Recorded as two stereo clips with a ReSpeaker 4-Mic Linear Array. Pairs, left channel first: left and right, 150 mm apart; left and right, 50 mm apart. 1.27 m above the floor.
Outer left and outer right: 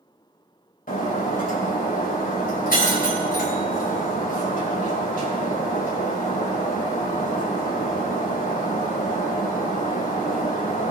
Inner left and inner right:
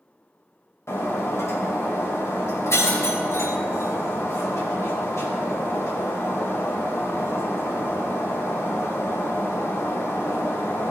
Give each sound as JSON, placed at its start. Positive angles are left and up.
{"t": 0.9, "sound": "breaking glass", "side_deg": 70, "distance_m": 2.5}